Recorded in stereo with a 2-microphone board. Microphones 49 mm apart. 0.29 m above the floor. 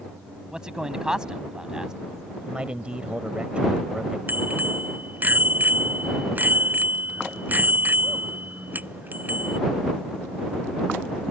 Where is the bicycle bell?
40° right (ahead or behind).